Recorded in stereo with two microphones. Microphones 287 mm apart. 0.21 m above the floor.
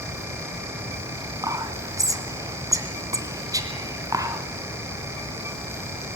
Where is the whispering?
10° right (ahead or behind), 2 m.